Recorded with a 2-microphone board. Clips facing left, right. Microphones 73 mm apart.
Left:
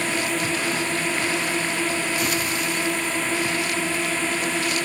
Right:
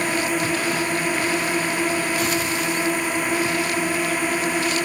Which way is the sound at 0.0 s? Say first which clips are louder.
Right 2 dB; 15° right (ahead or behind).